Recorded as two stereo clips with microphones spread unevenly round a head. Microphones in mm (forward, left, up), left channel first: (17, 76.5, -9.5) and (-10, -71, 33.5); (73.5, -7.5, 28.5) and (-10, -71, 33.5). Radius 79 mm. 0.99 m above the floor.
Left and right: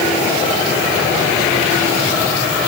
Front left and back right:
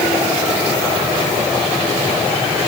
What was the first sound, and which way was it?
Only background noise.